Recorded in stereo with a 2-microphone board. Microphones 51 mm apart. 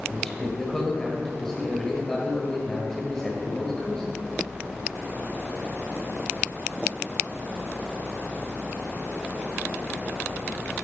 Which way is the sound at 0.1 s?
10° left (ahead or behind).